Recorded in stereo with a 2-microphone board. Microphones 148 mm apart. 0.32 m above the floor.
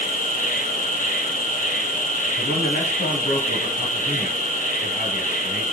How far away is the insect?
About 4 m.